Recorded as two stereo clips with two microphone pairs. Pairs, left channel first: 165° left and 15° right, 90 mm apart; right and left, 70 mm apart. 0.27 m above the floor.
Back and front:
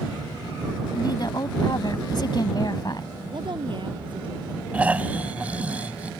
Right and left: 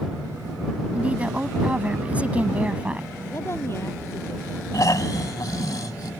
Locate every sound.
0.9 s a woman speaking: 155° left
3.3 s a woman speaking: 40° right
4.7 s snoring: 85° right